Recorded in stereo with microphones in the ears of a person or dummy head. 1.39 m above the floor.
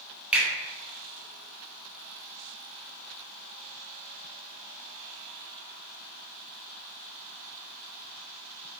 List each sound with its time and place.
0.3 s a finger snap: 10° right (ahead or behind), 0.6 m